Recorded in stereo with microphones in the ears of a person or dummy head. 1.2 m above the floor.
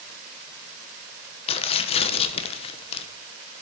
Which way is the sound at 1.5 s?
30° left (ahead or behind).